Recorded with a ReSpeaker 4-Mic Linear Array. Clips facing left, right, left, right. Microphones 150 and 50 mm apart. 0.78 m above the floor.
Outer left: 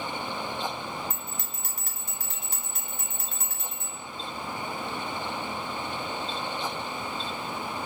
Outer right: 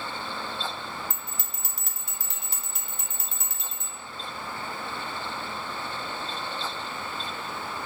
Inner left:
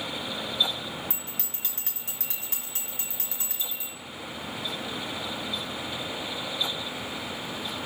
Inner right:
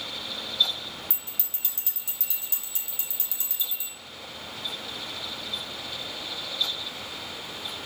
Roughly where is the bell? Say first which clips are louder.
Outer left 2 dB, inner left 4 dB; left.